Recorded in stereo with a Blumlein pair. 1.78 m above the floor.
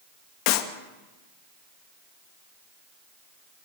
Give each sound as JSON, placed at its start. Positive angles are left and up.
{"t": 0.5, "sound": "a clap", "azimuth_deg": 45, "distance_m": 2.5}